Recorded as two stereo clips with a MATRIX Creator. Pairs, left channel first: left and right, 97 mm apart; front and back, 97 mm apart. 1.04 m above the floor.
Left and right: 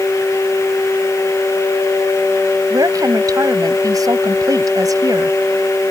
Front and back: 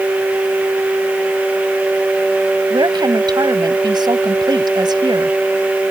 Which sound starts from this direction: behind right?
A woman speaking, at 2.7 s.